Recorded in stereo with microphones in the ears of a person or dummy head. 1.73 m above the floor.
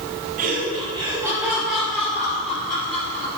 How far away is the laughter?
About 1.6 m.